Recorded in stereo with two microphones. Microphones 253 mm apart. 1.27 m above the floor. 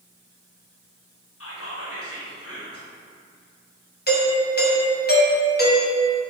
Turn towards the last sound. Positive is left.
turn(degrees=40)  # may be behind; listen again after turning